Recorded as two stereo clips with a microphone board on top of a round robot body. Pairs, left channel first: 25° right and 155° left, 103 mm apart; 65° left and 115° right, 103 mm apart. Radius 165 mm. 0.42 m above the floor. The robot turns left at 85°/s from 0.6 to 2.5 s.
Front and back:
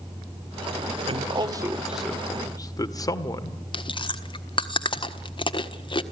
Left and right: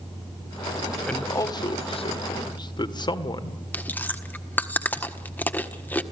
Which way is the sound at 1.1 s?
150° left.